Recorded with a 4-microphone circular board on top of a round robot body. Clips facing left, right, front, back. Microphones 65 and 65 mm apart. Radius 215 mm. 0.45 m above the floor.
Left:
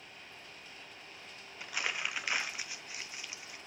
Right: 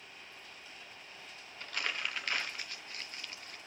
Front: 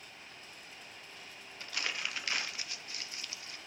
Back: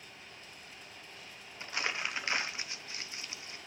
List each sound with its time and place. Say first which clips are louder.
1.6 s crumpling: left 1 dB, back 3 dB; 155° left, 1.5 m